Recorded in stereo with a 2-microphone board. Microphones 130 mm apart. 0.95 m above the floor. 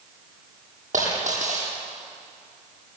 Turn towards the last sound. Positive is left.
turn(degrees=-80)